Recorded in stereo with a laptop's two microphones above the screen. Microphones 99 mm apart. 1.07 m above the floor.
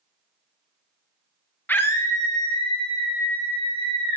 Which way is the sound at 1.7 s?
20° left (ahead or behind).